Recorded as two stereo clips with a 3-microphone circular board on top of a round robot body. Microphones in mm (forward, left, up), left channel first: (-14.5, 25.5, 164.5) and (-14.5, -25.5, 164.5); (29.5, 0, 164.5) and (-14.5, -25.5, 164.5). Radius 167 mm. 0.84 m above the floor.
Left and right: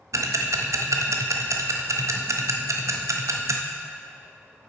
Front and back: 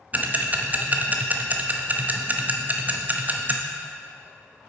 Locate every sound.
0.1 s ticking: 95° right, 0.8 m